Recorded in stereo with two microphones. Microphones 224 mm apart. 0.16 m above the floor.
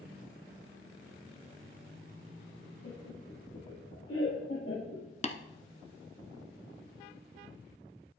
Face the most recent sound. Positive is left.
turn(degrees=30)  # may be behind; listen again after turning